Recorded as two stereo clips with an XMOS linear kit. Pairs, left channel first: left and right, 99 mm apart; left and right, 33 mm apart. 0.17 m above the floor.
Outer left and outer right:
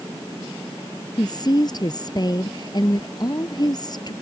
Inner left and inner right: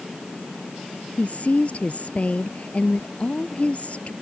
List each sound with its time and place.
1.2 s a woman speaking: 40° left (ahead or behind)